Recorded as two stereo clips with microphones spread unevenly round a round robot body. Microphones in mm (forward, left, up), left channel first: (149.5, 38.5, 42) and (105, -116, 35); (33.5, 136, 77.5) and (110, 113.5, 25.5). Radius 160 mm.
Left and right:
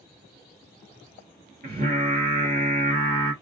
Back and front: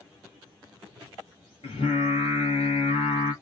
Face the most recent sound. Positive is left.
turn(degrees=-150)